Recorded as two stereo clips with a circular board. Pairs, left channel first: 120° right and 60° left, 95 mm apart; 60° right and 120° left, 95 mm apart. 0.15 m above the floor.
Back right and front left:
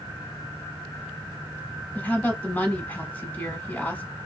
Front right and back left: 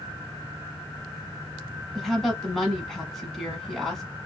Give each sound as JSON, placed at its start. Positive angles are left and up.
{"t": 1.9, "sound": "a woman speaking", "azimuth_deg": -150, "distance_m": 1.1}